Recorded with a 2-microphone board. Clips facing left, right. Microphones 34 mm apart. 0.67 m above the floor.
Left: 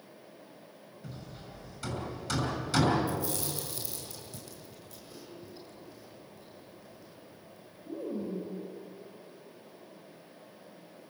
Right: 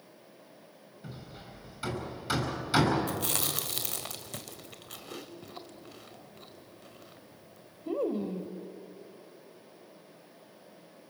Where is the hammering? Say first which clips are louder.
Right 1 dB; 20° right (ahead or behind), 6.5 m.